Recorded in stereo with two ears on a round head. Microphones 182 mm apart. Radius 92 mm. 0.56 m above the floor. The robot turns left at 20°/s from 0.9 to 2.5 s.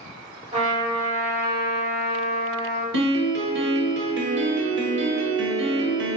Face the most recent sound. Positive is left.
turn(degrees=-55)  # may be behind; listen again after turning